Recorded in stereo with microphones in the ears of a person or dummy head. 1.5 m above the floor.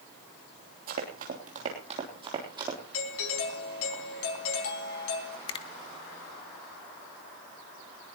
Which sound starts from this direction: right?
Running footsteps, at 0.9 s.